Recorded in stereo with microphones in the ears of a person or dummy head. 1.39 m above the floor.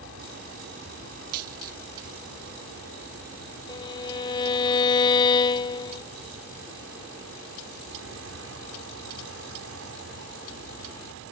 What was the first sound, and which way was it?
An aircraft, 55° right (ahead or behind).